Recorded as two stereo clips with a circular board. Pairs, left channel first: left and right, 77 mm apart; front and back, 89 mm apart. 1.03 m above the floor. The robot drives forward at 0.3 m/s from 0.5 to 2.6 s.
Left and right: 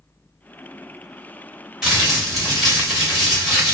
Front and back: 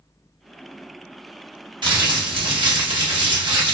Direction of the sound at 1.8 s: 175° right.